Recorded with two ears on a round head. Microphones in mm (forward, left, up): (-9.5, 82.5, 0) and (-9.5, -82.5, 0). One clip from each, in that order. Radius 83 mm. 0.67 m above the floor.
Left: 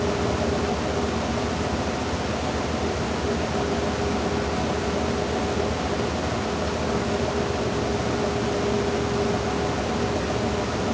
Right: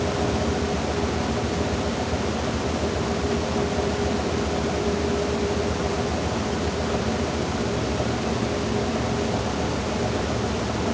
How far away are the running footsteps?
I don't hear running footsteps.